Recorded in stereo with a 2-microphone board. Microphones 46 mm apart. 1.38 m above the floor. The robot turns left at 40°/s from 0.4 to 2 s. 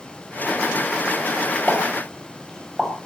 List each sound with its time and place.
1.7 s a pop: 5° right (ahead or behind), 6.5 m; by 2.9 s 10° left (ahead or behind), 6.5 m